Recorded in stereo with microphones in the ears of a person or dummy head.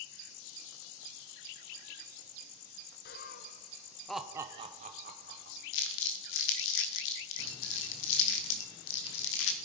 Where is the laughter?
50° left (ahead or behind), 0.8 m; by 5.6 s 55° right (ahead or behind), 1.0 m.